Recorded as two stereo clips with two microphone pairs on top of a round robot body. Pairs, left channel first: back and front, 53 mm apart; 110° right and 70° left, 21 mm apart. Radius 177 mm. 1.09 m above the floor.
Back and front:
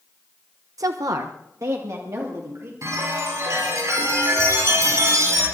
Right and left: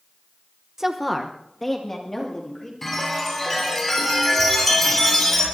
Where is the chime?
30° right, 7.5 m.